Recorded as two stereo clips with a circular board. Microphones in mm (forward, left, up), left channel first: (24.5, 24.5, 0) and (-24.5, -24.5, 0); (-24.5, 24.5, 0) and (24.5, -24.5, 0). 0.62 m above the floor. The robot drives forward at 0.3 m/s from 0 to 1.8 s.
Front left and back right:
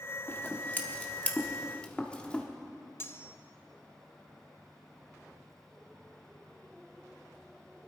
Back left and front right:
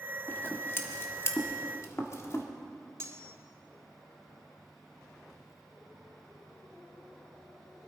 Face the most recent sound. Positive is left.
turn(degrees=-5)